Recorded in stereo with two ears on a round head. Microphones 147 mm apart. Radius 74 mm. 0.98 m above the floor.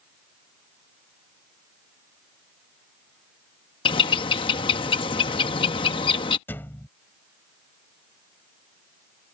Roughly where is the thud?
Centre.